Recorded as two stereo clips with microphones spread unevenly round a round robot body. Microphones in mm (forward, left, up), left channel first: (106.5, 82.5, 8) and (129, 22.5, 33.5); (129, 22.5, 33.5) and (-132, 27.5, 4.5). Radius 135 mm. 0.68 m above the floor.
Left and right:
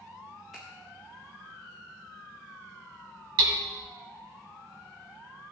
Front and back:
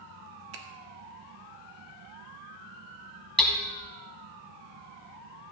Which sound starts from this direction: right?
Hammering, at 3.4 s.